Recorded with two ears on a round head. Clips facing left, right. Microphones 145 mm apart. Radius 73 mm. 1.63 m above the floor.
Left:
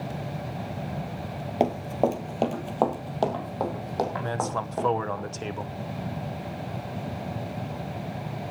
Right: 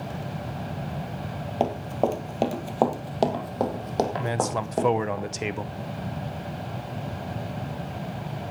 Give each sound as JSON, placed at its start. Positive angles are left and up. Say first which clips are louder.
{"t": 1.6, "sound": "running footsteps", "louder": "left 1 dB", "side_deg": 15, "distance_m": 2.5}
{"t": 4.2, "sound": "a man speaking", "louder": "right 2 dB", "side_deg": -15, "distance_m": 0.8}